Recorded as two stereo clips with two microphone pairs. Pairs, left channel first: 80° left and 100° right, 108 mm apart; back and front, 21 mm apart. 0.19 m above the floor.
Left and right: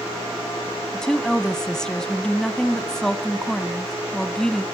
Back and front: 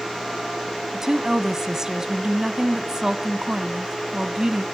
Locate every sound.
0.9 s a woman speaking: straight ahead, 1.0 m